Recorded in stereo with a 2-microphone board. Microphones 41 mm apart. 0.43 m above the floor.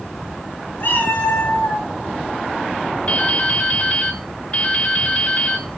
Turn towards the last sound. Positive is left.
turn(degrees=35)  # may be behind; listen again after turning